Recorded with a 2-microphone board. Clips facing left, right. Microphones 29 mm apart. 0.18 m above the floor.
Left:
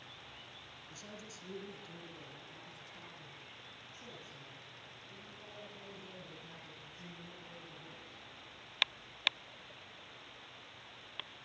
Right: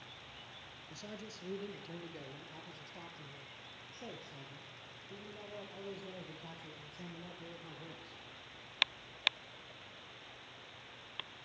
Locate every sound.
0.9 s a man speaking: 30° right (ahead or behind), 2.5 m; by 8.2 s 70° right (ahead or behind), 6 m